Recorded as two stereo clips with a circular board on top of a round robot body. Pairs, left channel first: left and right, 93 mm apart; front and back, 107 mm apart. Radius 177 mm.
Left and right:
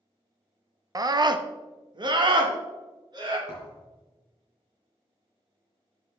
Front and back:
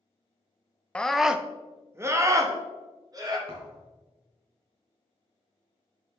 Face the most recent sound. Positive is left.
turn(degrees=145)